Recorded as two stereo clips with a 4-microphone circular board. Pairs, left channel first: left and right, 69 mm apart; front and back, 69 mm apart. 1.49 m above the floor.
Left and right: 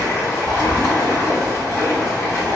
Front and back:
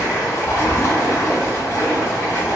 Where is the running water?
50° left, 1.4 m.